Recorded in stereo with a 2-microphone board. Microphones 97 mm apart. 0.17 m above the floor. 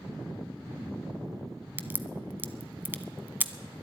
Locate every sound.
1.8 s a crack: 20° right (ahead or behind), 0.6 m